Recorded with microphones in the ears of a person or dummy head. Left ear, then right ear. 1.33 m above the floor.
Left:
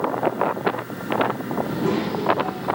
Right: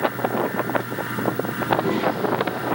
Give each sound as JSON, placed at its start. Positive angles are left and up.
{"t": 1.6, "sound": "a child speaking", "side_deg": -10, "distance_m": 8.0}